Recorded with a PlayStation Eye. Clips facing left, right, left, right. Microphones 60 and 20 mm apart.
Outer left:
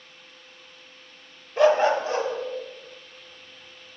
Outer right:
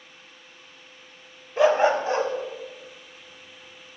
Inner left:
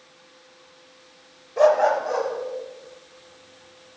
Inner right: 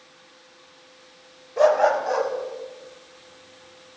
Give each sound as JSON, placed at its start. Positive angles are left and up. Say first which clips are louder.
{"t": 1.6, "sound": "a dog barking", "louder": "even, even", "side_deg": -5, "distance_m": 0.6}